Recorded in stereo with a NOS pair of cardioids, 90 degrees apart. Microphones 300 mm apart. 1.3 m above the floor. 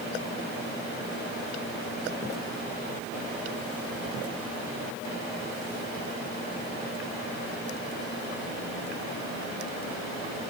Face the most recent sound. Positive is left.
No sound to turn to.